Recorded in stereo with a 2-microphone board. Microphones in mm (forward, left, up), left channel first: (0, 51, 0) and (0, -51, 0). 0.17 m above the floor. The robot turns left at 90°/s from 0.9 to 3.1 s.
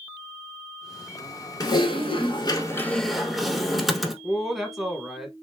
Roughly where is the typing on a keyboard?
Behind left.